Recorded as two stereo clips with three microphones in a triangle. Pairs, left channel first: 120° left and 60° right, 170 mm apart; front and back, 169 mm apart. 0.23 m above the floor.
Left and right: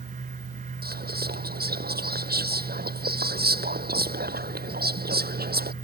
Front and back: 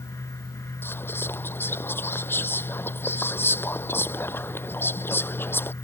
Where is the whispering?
75° right.